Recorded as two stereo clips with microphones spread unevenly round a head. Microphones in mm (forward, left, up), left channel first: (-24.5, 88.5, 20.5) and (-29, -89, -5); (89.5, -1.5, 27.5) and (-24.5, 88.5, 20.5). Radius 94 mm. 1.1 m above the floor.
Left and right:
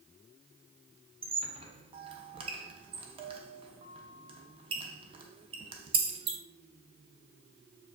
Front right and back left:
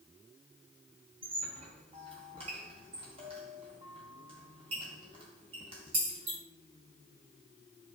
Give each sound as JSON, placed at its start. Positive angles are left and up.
{"t": 1.2, "sound": "a squeak", "azimuth_deg": -155, "distance_m": 0.5}